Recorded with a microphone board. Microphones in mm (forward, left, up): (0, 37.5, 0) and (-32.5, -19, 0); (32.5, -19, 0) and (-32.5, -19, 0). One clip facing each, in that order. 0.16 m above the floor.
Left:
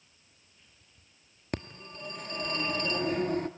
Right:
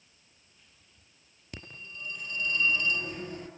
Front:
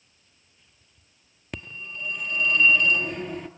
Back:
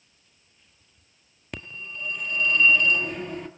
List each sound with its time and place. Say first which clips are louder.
1.5 s a phone ringing: left 7 dB, even; 90° left, 1.5 m